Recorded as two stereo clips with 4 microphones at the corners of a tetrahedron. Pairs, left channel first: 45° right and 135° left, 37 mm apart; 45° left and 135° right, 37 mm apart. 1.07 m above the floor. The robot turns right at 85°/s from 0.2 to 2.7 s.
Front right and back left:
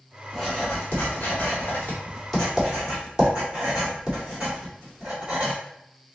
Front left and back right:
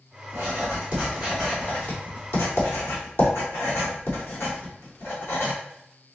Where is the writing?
130° right, 1.7 m; by 5.5 s 70° left, 1.7 m.